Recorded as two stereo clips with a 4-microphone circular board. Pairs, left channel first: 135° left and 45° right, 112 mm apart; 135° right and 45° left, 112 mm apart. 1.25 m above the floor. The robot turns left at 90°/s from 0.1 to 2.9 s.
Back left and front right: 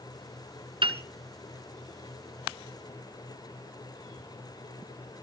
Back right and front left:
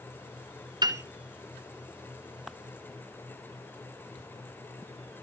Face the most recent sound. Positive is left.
turn(degrees=165)